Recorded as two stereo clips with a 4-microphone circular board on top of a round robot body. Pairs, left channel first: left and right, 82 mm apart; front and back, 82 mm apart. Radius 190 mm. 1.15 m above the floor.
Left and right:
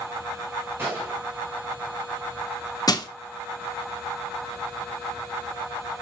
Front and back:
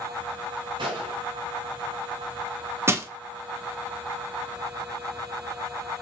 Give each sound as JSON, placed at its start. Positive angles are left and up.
{"t": 0.8, "sound": "a gunshot", "azimuth_deg": -155, "distance_m": 1.2}
{"t": 2.9, "sound": "crushing", "azimuth_deg": 125, "distance_m": 1.0}